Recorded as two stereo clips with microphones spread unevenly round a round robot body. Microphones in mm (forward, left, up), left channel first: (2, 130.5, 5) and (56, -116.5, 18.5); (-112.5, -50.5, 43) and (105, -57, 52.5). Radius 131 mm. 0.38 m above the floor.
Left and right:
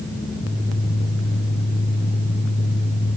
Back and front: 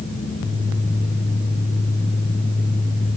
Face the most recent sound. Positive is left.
No sound to turn to.